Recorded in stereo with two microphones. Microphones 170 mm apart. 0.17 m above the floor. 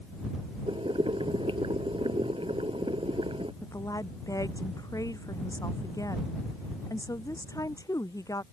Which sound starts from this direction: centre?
A woman speaking, at 3.6 s.